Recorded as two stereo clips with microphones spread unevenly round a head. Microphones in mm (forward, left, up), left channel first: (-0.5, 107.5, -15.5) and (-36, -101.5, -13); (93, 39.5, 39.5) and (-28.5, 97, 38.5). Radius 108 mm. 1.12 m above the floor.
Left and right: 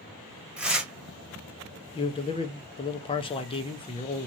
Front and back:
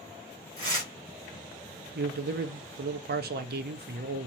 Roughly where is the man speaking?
Behind left.